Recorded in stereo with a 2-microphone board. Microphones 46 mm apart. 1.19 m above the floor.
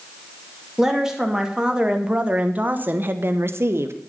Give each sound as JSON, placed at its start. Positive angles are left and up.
{"t": 0.8, "sound": "a woman speaking", "side_deg": -10, "distance_m": 2.0}